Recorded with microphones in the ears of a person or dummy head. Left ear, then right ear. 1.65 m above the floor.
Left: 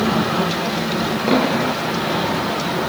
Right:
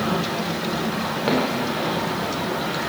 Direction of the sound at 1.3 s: 45° right (ahead or behind).